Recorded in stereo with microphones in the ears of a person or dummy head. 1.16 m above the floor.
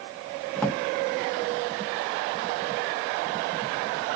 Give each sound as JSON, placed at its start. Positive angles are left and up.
{"t": 0.6, "sound": "a drawer", "side_deg": 5, "distance_m": 0.5}